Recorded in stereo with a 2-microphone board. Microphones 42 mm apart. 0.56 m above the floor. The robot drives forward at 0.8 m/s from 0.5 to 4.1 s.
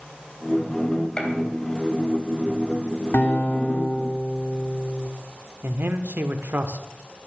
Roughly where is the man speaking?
Right.